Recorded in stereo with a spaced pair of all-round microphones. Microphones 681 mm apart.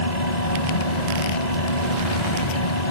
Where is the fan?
80° left.